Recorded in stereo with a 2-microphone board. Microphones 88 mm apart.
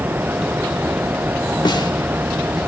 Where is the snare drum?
55° left (ahead or behind), 1.9 m.